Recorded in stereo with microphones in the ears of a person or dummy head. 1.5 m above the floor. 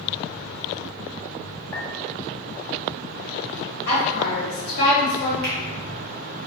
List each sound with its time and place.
1.7 s a clink: 15° left (ahead or behind), 1.6 m
3.9 s a woman speaking: 60° left (ahead or behind), 1.3 m
5.4 s a finger snap: 60° right (ahead or behind), 1.1 m